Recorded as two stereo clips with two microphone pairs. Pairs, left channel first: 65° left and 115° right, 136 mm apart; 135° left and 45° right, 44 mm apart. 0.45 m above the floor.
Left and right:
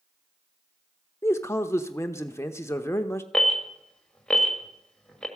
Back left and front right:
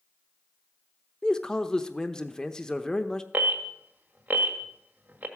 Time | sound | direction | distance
1.2 | a man speaking | 90° left | 0.8 m
3.3 | an alarm | 20° right | 1.7 m